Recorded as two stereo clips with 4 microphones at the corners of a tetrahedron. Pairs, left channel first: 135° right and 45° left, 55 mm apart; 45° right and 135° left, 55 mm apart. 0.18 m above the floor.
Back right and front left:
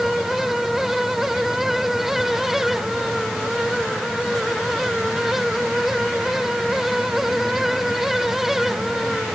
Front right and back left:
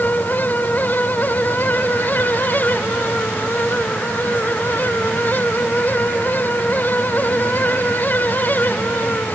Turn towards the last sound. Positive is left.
No sound to turn to.